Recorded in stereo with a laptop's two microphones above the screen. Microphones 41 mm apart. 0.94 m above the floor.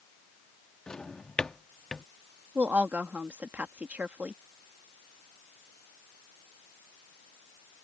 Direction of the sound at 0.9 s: 20° left (ahead or behind).